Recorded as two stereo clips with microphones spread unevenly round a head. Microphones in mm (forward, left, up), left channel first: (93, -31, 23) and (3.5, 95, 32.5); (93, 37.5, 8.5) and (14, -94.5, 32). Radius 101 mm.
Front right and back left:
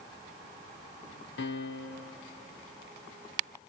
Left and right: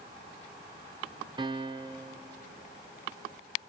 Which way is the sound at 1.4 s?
60° right.